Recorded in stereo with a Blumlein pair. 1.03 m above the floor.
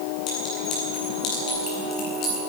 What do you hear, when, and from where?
0.3 s a clink: 35° left, 9.5 m